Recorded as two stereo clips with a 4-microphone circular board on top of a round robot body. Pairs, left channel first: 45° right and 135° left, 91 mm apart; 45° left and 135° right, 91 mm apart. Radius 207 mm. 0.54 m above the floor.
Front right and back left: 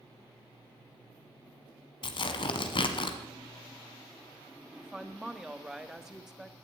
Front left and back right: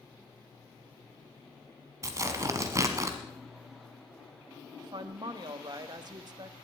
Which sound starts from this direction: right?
Tearing paper, at 2.0 s.